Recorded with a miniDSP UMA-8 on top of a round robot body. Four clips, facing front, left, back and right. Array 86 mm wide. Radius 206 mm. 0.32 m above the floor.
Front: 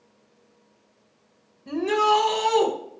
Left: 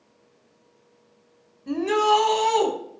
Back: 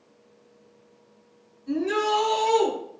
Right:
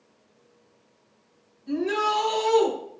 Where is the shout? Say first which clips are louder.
Left 5 dB, front 3 dB; 50° left, 4 m.